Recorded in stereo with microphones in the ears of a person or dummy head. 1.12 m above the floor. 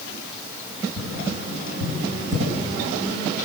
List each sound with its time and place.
1.0 s tapping: 45° right (ahead or behind), 9.5 m